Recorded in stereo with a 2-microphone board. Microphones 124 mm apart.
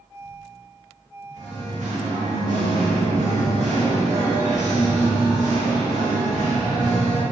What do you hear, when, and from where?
1.3 s singing: 80° right, 0.6 m